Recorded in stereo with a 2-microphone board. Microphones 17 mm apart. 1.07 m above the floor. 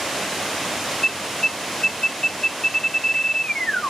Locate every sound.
1.0 s an alarm: 75° left (ahead or behind), 1.0 m